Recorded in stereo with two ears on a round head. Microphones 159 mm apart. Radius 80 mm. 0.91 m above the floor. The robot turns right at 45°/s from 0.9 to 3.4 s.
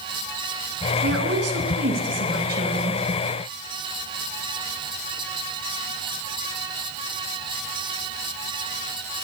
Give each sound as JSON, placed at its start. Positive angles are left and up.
{"t": 1.0, "sound": "a woman speaking", "azimuth_deg": -125, "distance_m": 8.5}